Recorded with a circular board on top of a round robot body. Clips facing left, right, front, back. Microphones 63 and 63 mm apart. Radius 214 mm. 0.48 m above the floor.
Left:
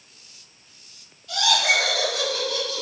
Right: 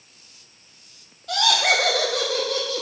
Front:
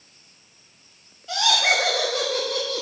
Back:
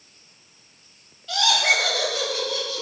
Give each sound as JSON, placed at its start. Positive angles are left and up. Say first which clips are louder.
{"t": 1.3, "sound": "laughter", "louder": "right 1 dB, even", "azimuth_deg": -70, "distance_m": 2.5}